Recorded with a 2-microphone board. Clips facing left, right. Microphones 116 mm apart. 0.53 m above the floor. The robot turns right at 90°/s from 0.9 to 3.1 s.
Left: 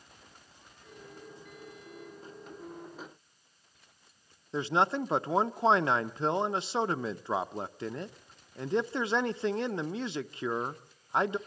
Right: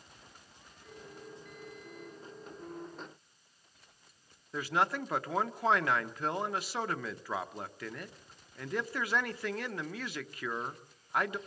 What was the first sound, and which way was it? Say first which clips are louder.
A man speaking: left 4 dB; 25° left (ahead or behind).